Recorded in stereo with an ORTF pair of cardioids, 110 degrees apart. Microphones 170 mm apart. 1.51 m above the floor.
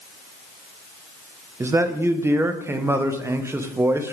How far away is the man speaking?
About 1.0 m.